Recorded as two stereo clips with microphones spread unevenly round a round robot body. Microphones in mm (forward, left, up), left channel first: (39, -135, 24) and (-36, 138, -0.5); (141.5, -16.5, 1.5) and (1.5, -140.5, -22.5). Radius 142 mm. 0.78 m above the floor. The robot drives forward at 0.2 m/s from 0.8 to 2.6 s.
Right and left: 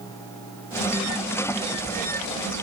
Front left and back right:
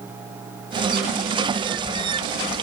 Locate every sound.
Only background noise.